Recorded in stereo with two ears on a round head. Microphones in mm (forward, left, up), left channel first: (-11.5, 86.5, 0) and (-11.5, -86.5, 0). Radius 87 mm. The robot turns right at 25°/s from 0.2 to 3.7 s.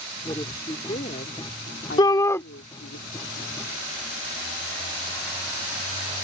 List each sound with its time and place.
0.3 s a woman speaking: 15° left; by 3.0 s 85° left
2.0 s a shout: 25° left (ahead or behind); by 2.4 s 15° left (ahead or behind)